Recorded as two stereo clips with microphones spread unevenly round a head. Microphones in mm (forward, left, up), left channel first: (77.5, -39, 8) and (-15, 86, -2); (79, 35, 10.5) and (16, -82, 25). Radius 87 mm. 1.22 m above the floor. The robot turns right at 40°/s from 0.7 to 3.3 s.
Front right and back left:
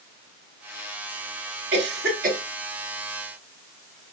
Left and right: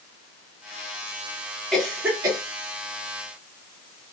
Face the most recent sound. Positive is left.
turn(degrees=-150)